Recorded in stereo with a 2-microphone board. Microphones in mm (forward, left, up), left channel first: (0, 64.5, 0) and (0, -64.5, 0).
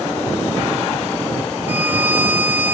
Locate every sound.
1.7 s a violin: 15° right (ahead or behind)